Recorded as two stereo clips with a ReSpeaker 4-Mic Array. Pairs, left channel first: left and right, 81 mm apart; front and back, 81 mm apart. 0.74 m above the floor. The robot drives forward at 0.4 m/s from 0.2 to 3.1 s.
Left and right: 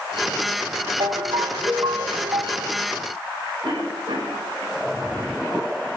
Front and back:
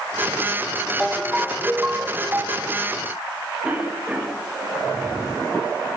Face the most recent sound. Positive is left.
turn(degrees=-105)